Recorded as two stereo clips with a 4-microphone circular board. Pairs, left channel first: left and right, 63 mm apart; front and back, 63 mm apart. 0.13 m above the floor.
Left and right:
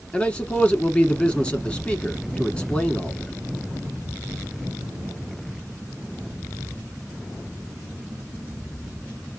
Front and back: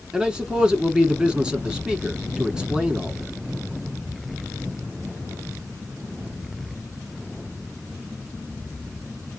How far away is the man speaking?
About 1.3 m.